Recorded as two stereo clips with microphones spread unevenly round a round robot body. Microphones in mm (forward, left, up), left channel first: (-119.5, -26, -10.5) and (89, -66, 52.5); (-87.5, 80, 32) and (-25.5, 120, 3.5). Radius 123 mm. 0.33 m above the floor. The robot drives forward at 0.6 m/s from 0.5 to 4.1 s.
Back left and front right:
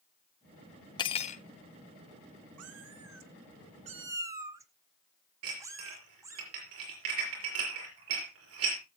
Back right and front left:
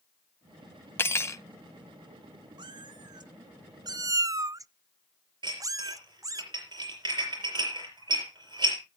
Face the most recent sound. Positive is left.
turn(degrees=30)